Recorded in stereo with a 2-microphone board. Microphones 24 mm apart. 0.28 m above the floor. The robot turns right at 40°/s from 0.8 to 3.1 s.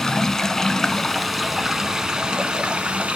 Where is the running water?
160° left, 0.7 m; by 3.2 s 110° right, 0.7 m.